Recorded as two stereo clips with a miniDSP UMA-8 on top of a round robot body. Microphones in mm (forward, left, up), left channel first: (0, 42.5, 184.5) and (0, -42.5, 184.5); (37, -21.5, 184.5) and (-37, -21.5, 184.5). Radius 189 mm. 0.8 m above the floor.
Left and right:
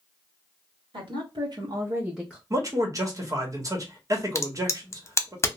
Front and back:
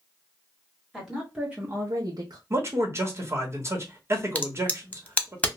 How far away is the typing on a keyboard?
No typing on a keyboard in this recording.